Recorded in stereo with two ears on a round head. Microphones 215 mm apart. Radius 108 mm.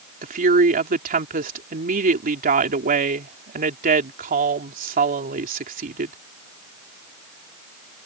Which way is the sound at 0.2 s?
35° right (ahead or behind).